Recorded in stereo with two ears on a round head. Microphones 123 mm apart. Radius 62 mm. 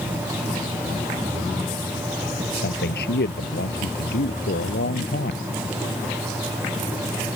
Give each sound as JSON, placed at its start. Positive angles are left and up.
{"t": 2.5, "sound": "a man speaking", "side_deg": 75}